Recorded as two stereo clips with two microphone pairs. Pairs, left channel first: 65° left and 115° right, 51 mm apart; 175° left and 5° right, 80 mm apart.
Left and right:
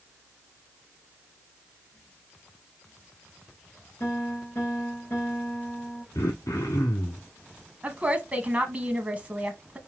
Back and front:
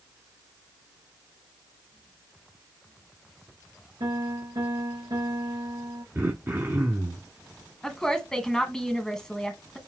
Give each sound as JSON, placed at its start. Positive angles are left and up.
{"t": 4.0, "sound": "a piano", "azimuth_deg": 25, "distance_m": 3.5}
{"t": 6.2, "sound": "throat clearing", "azimuth_deg": 50, "distance_m": 1.0}
{"t": 7.8, "sound": "a woman speaking", "azimuth_deg": -115, "distance_m": 1.1}